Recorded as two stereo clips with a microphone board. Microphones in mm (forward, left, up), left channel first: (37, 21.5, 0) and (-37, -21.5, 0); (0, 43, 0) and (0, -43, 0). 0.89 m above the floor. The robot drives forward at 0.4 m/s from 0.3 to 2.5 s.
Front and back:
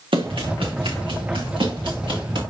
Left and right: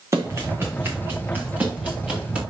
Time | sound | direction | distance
0.1 | running footsteps | 145° right | 4 m